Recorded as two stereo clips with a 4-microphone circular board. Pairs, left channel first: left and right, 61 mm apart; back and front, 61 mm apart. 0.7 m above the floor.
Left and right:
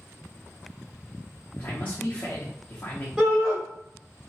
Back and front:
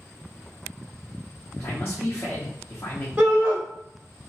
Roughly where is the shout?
Ahead right.